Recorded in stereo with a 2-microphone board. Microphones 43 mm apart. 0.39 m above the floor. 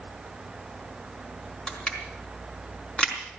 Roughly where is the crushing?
Centre.